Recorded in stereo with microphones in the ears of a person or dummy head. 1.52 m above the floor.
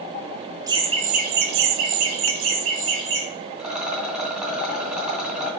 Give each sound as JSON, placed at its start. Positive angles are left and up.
{"t": 0.7, "sound": "laughter", "side_deg": -25, "distance_m": 1.1}
{"t": 3.6, "sound": "a rattle", "side_deg": -5, "distance_m": 3.0}